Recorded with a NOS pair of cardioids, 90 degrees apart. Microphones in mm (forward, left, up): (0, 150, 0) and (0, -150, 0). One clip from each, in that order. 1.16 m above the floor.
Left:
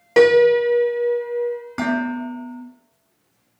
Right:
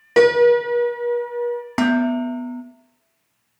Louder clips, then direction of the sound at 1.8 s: Right 4 dB; 55° right.